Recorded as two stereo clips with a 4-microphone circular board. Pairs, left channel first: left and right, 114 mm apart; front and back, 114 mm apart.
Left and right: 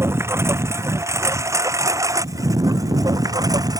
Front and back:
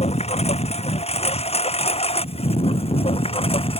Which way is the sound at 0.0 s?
20° right.